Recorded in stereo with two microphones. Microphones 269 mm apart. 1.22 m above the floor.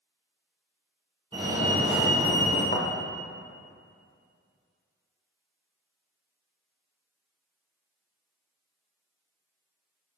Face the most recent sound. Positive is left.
turn(degrees=35)  # may be behind; listen again after turning